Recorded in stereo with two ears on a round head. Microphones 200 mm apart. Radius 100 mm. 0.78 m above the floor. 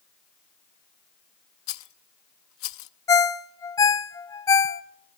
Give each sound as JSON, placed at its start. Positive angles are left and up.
{"t": 1.7, "sound": "a rattle", "side_deg": 65, "distance_m": 0.7}
{"t": 3.1, "sound": "a ringtone", "side_deg": 15, "distance_m": 0.5}